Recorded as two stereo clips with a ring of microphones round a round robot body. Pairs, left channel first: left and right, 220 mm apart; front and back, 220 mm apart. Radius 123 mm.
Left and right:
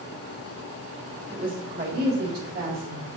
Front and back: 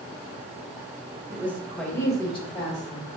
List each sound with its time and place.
1.3 s a woman speaking: 115° right, 1.5 m; by 3.1 s 50° right, 2.5 m